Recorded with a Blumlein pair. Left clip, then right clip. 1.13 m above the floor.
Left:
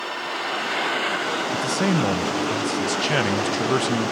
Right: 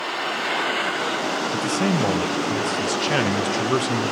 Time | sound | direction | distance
1.5 | a man speaking | 5° left | 0.5 m